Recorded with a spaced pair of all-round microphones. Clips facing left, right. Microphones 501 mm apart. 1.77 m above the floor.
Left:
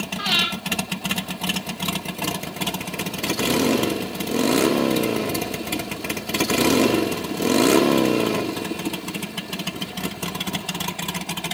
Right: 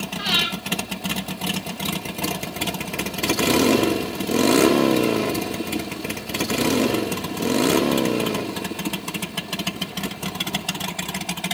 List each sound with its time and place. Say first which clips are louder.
0.2 s breathing: even; 25° left (ahead or behind), 4 m